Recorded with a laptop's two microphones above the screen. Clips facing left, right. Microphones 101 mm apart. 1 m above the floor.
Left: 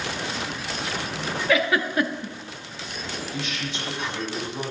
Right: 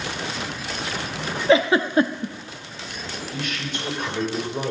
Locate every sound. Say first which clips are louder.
1.5 s a giggle: right 6 dB; 30° right (ahead or behind), 0.5 m
3.3 s a man speaking: right 4 dB; 55° right (ahead or behind), 3.5 m